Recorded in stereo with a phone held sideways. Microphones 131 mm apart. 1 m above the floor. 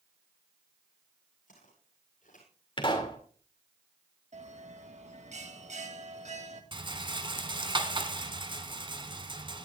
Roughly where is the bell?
Right.